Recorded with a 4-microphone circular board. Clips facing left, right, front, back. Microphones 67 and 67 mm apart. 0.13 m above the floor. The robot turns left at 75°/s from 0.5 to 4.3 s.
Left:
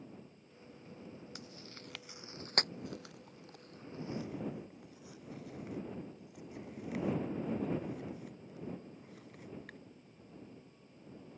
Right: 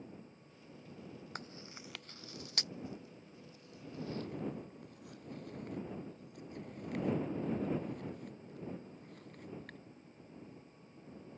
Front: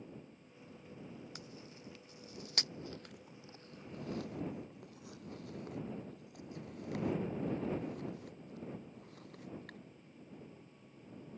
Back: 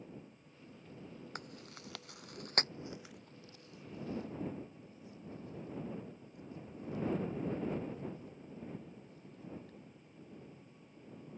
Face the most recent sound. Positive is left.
turn(degrees=5)